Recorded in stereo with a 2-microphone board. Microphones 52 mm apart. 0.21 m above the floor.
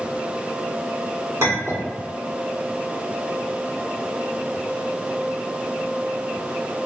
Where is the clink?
60° right (ahead or behind), 1.7 m.